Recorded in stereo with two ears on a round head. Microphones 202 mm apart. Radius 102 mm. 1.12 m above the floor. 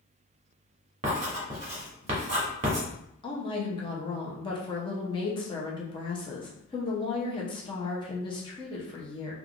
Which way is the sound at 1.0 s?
30° right (ahead or behind).